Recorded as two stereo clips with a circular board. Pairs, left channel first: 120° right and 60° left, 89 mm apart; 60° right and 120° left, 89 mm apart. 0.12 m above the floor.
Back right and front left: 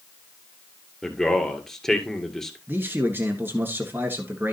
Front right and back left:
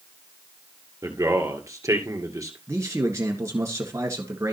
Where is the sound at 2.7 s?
105° left, 1.5 m.